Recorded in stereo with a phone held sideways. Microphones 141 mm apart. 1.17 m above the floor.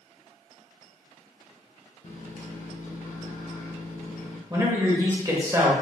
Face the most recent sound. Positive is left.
turn(degrees=-25)  # may be behind; listen again after turning